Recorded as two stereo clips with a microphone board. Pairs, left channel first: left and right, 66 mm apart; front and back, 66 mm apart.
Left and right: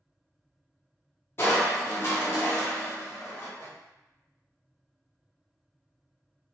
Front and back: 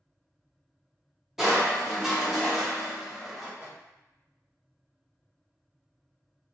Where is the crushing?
100° left, 0.9 m.